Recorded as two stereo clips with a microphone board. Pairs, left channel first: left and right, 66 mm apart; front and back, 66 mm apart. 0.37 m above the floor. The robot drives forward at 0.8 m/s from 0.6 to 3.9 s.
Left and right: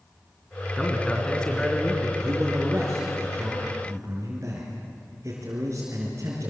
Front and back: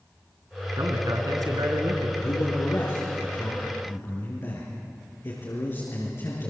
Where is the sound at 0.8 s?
165° left, 4 m; by 2.1 s 170° left, 5 m.